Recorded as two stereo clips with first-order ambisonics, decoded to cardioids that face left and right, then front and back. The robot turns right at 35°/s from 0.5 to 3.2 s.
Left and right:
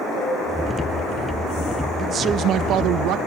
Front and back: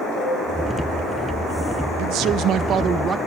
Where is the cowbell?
155° right, 7.5 m.